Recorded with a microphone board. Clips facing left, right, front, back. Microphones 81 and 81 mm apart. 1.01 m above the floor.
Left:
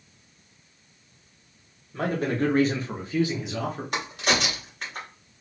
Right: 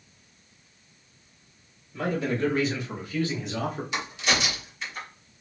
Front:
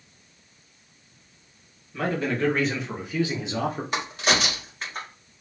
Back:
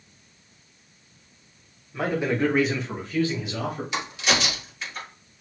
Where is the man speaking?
110° left, 1.4 m; by 3.8 s 20° right, 0.9 m.